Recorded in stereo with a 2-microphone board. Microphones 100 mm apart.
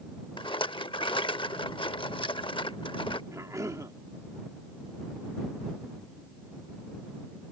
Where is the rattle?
60° left (ahead or behind).